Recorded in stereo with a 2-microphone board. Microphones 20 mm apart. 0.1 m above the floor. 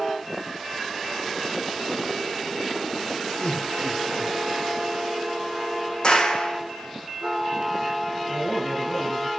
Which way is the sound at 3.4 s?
70° left (ahead or behind).